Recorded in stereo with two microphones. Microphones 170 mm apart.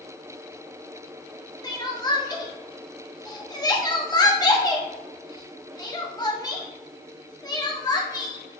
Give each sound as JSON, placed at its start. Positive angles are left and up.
{"t": 1.6, "sound": "crying", "side_deg": 25, "distance_m": 0.8}